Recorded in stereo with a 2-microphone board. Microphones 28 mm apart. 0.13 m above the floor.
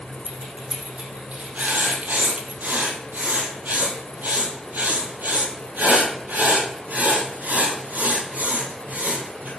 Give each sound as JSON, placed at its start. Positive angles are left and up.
{"t": 0.2, "sound": "keys jangling", "side_deg": -55, "distance_m": 4.5}
{"t": 1.6, "sound": "writing", "side_deg": -75, "distance_m": 9.0}